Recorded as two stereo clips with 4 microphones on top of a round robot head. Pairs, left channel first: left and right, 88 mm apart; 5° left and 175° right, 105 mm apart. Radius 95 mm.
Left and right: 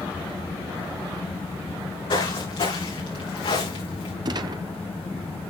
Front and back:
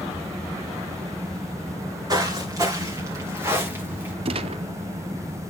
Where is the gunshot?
135° right, 0.6 m.